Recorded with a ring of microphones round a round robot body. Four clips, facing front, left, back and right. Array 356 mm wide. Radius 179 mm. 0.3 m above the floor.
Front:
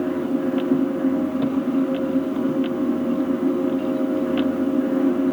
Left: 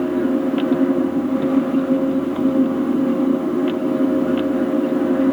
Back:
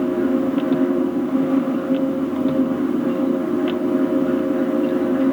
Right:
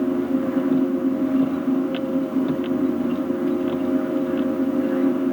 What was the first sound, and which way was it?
Only background noise.